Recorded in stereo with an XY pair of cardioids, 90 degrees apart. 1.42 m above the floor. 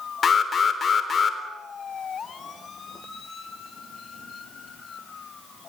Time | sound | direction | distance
0.2 | an alarm | 45° left | 3.5 m